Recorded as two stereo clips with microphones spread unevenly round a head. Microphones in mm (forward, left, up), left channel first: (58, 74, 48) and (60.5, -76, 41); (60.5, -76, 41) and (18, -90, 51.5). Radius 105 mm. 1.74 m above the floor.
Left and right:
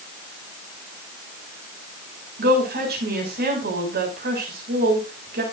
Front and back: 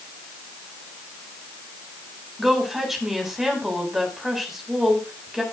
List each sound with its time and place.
2.4 s a woman speaking: 80° right, 6.5 m